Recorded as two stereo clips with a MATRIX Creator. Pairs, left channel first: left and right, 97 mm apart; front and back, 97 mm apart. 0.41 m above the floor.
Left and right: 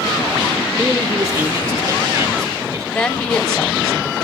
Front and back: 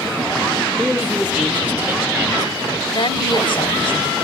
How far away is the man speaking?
About 1.7 m.